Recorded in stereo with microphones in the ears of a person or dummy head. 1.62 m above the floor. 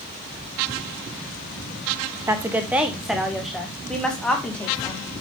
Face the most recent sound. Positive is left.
turn(degrees=5)  # may be behind; listen again after turning